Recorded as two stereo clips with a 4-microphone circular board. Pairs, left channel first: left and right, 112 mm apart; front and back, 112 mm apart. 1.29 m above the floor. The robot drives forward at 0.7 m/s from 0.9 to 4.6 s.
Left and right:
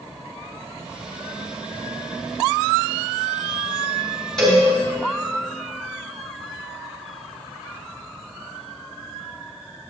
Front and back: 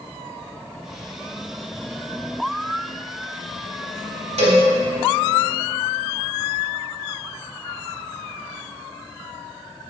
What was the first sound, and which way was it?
A cowbell, 175° left.